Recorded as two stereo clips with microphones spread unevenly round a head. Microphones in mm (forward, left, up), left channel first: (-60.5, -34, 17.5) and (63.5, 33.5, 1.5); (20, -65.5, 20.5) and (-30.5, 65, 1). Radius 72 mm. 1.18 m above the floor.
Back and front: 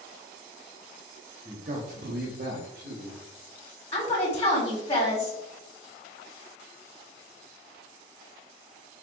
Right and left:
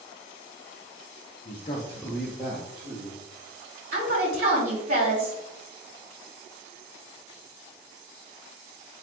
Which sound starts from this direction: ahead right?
A man speaking, at 1.4 s.